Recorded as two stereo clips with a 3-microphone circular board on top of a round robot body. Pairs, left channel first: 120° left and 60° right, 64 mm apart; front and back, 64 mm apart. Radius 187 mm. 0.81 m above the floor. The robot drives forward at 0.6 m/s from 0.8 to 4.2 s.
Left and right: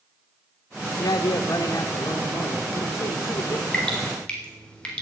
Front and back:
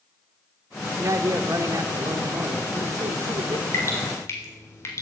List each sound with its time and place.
1.0 s a man speaking: 135° left, 0.9 m; by 3.6 s 165° left, 2.5 m
3.7 s dripping: 40° left, 4 m; by 5.0 s 45° left, 3.5 m